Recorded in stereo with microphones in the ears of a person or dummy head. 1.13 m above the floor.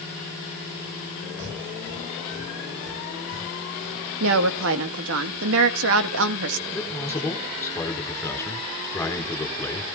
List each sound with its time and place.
1.4 s breathing: 70° right (ahead or behind), 2 m
4.2 s a woman speaking: 70° right (ahead or behind), 1.5 m
6.7 s a man speaking: 10° left (ahead or behind), 4 m